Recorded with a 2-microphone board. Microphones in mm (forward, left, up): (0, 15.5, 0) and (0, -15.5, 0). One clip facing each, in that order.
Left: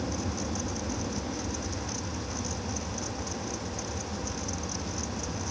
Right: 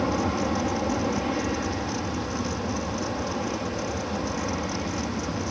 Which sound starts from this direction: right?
An aircraft, at 0.0 s.